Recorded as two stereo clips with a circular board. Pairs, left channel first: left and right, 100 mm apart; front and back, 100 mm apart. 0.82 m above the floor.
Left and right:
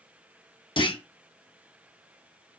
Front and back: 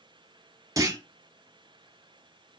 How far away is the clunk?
About 0.7 m.